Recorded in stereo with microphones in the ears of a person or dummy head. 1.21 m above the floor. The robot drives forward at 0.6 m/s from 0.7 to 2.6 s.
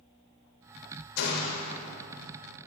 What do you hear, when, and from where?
1.2 s a gunshot: 65° left (ahead or behind), 1.1 m; by 1.8 s 55° left (ahead or behind), 1.3 m